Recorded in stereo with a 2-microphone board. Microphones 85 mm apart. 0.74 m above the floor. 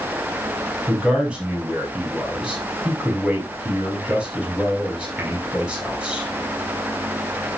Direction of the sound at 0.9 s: 10° right (ahead or behind).